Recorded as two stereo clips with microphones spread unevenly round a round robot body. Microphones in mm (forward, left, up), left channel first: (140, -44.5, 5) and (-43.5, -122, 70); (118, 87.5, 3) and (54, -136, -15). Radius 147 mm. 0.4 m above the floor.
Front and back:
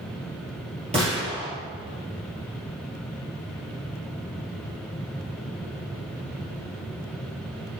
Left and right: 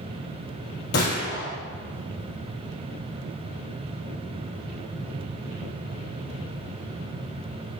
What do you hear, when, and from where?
0.9 s a gunshot: 135° left, 2.5 m